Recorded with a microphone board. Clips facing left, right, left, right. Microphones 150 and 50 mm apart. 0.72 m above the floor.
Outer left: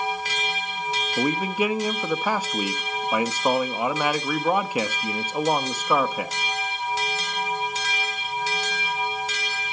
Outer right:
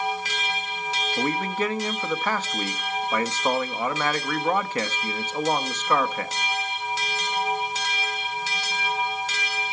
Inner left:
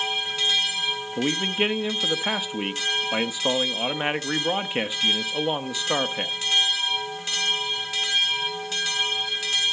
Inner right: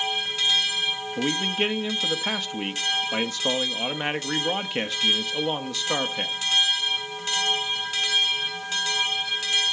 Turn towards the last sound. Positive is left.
turn(degrees=10)  # may be behind; listen again after turning